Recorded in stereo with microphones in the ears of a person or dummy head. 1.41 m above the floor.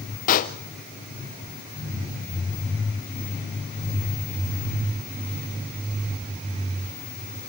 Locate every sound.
0.3 s a pop: 45° left (ahead or behind), 0.7 m